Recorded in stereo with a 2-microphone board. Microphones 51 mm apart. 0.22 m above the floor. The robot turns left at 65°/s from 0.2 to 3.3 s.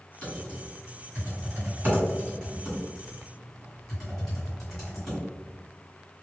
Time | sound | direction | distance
0.2 | typing on a keyboard | 15° left (ahead or behind) | 1.9 m